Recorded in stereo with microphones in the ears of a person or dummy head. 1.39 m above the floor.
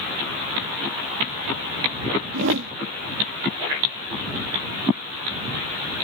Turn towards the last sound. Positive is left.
turn(degrees=-70)  # may be behind; listen again after turning